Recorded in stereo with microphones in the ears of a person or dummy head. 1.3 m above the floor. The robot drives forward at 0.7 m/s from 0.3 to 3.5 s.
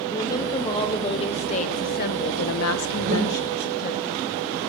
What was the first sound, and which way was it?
A woman speaking, 20° left (ahead or behind).